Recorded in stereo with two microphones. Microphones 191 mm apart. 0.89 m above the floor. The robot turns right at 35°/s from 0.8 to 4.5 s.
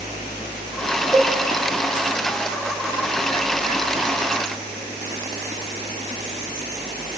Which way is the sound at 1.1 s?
Centre (ahead or behind).